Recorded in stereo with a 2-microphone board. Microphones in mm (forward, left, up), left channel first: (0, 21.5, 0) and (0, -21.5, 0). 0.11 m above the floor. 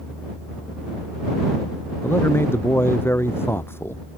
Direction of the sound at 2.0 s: 65° left (ahead or behind).